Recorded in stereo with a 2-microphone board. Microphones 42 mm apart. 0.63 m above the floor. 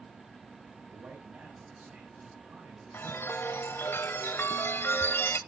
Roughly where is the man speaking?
Right.